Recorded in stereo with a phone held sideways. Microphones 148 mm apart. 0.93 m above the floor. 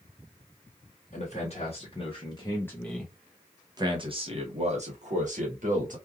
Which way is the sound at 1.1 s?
55° left (ahead or behind).